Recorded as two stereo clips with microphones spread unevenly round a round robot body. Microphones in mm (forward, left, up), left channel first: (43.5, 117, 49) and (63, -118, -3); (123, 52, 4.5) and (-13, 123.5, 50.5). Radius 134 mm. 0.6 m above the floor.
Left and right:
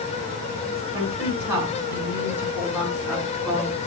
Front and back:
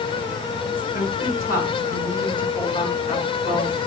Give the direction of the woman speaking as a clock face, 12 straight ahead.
12 o'clock.